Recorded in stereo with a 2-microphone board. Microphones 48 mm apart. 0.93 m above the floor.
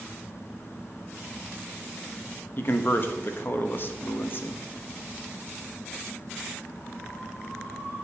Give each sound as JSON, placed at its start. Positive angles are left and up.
{"t": 2.6, "sound": "a man speaking", "side_deg": 45, "distance_m": 0.9}